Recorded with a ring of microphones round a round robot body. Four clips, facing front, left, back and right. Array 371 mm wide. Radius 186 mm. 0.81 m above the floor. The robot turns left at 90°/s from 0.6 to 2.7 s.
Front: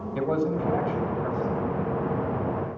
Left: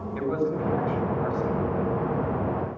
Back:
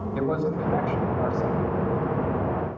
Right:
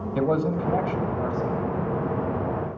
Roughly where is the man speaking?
Right.